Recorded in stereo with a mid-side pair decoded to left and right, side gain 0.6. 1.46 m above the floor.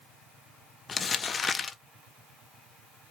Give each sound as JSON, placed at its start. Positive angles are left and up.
{"t": 0.9, "sound": "crumpling", "azimuth_deg": 30, "distance_m": 1.3}